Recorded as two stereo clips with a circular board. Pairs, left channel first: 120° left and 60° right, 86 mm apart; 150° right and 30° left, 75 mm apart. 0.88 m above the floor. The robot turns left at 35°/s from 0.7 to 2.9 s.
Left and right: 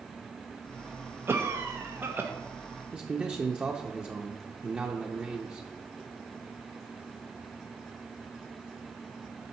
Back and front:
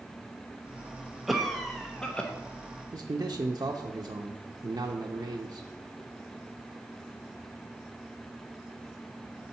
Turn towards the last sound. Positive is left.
turn(degrees=15)